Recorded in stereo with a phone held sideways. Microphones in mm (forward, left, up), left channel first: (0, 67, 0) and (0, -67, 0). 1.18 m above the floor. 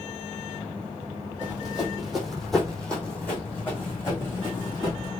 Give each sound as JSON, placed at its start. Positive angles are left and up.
{"t": 1.4, "sound": "running footsteps", "side_deg": -10, "distance_m": 2.5}